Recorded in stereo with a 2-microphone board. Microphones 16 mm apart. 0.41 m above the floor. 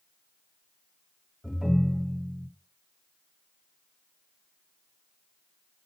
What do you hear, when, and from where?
1.4 s a ringtone: 5° right (ahead or behind), 1.5 m